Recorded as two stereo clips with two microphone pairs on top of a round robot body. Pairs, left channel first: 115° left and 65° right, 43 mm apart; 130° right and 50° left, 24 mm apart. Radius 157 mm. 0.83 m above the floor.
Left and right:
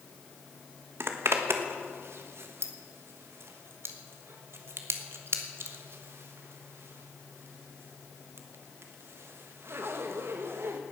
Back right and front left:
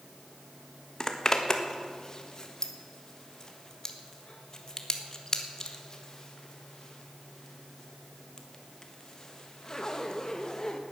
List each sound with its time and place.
1.0 s a zipper: 75° right, 1.6 m